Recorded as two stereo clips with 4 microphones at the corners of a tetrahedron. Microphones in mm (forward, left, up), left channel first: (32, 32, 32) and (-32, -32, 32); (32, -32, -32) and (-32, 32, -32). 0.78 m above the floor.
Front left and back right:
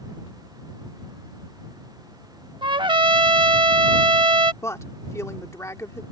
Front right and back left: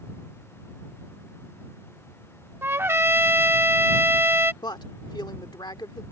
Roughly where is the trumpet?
Behind.